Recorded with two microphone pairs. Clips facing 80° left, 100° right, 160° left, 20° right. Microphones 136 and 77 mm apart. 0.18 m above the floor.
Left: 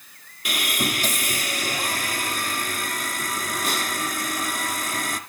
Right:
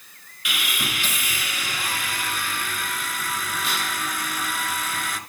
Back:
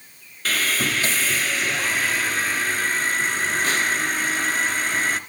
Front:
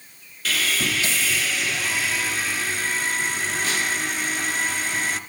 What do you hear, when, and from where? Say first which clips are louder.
0.5 s sawing: left 4 dB, back 2 dB; 120° left, 1.7 m